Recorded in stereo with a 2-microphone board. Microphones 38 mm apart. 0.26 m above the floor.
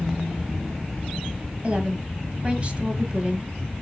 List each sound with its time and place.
1.6 s a woman speaking: 30° right (ahead or behind), 1.6 m